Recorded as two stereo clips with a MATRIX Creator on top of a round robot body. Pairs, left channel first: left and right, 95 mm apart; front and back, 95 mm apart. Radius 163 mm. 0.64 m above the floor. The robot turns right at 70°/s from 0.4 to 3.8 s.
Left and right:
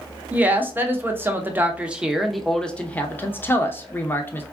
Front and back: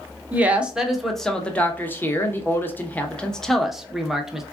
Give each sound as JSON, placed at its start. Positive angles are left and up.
{"t": 0.3, "sound": "a woman speaking", "azimuth_deg": -135, "distance_m": 1.0}